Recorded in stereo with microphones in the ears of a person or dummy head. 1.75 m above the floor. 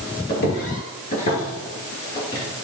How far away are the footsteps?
About 2 m.